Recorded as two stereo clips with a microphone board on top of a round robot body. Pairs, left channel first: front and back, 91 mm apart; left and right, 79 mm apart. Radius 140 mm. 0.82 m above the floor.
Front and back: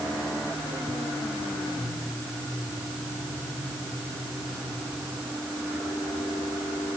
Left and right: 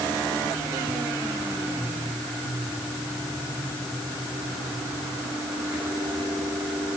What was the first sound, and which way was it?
Only background noise.